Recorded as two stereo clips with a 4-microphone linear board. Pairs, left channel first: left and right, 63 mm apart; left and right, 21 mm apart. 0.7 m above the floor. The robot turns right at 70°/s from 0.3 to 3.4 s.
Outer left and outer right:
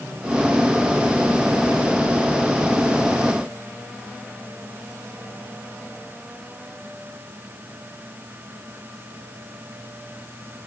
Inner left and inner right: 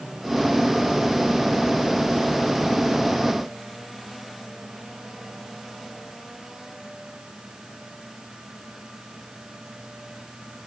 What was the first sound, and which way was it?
Only background noise.